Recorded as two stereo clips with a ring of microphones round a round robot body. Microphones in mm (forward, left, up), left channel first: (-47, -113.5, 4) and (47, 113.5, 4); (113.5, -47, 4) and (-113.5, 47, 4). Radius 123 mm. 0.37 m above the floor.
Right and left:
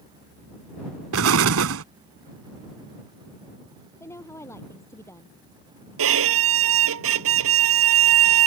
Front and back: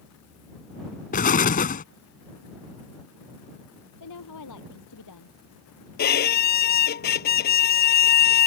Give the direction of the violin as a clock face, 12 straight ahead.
11 o'clock.